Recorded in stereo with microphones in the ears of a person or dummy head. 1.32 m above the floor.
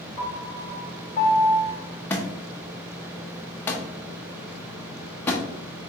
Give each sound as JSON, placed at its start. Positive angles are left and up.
{"t": 0.2, "sound": "a piano", "side_deg": 25, "distance_m": 1.1}
{"t": 2.1, "sound": "a thud", "side_deg": 5, "distance_m": 0.6}